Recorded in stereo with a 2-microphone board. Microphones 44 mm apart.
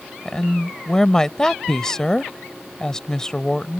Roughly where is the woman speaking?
Centre.